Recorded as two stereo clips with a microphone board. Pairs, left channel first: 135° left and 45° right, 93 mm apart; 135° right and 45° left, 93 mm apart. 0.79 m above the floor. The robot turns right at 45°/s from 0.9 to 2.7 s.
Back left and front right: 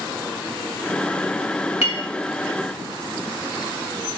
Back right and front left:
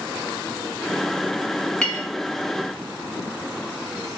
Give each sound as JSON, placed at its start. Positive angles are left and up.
{"t": 1.8, "sound": "a clink", "azimuth_deg": 145, "distance_m": 1.3}